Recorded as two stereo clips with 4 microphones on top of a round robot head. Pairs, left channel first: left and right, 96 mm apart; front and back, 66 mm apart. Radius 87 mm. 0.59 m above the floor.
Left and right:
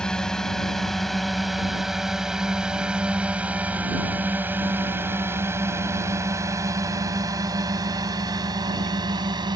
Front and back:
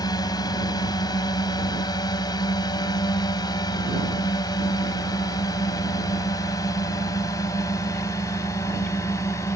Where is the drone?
10° left; by 9.6 s 50° right.